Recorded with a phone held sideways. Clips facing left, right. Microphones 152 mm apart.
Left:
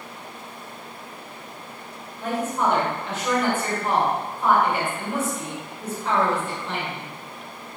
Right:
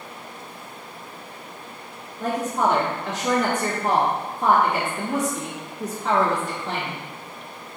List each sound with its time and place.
2.2 s a woman speaking: 75° right (ahead or behind), 1.9 m